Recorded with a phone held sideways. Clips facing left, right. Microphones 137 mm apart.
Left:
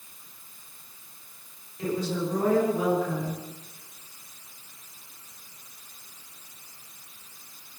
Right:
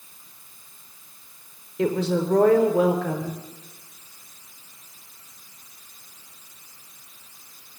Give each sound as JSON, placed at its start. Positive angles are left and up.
{"t": 1.8, "sound": "a woman speaking", "side_deg": -75, "distance_m": 4.0}